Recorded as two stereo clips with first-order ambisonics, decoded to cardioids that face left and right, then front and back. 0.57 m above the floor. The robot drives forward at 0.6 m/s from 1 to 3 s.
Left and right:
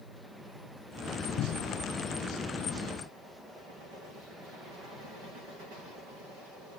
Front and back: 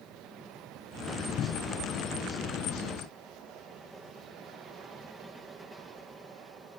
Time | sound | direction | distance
1.4 | a cupboard door | 50° left | ?